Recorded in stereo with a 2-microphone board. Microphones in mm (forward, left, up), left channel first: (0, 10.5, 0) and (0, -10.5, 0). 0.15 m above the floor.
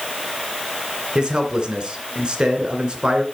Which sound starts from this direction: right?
A man speaking, at 1.1 s.